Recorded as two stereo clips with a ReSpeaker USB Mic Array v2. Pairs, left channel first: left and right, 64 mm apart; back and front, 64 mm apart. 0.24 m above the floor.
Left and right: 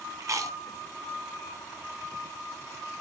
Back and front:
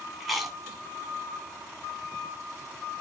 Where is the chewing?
90° right, 1.7 m.